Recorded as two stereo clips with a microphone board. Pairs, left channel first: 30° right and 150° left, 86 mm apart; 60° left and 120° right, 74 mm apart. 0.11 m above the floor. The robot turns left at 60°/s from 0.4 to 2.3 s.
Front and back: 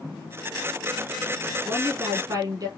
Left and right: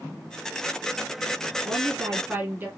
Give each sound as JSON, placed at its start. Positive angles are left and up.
{"t": 1.6, "sound": "a woman speaking", "azimuth_deg": -145, "distance_m": 3.0}